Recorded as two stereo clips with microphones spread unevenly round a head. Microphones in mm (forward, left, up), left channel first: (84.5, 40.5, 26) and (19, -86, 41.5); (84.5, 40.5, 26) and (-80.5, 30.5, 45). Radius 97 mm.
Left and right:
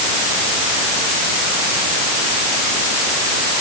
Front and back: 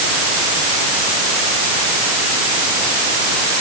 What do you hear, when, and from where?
Only background noise.